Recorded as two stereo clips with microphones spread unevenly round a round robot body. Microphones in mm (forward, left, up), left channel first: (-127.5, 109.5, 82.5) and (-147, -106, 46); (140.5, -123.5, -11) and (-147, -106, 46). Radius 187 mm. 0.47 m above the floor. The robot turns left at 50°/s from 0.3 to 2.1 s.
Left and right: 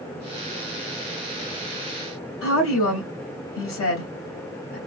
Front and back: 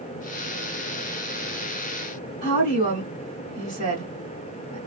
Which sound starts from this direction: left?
A woman speaking, at 2.4 s.